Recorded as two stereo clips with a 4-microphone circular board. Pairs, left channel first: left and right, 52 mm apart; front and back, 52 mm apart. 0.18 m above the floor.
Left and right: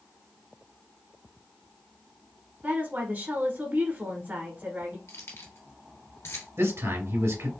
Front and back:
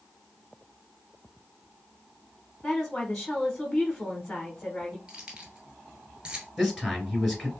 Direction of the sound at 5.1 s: 110° left.